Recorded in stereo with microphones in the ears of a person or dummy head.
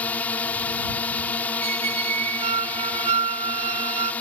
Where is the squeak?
30° right (ahead or behind).